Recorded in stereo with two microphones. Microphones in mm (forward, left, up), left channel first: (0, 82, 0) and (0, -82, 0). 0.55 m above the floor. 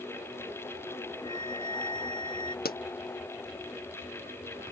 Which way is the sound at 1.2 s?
30° left (ahead or behind).